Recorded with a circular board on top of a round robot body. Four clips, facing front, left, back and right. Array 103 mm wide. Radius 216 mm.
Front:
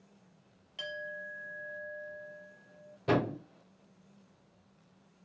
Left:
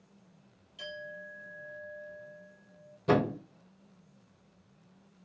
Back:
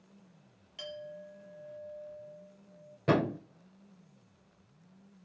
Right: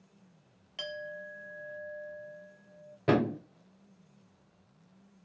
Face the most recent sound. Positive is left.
turn(degrees=-120)